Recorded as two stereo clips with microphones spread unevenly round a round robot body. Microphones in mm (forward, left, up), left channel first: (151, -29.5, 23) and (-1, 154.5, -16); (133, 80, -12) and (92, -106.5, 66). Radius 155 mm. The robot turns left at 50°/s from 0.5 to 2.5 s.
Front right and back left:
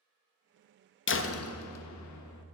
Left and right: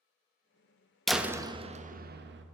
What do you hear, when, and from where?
1.1 s a door slam: 10° right, 0.7 m; by 2.5 s 75° right, 0.7 m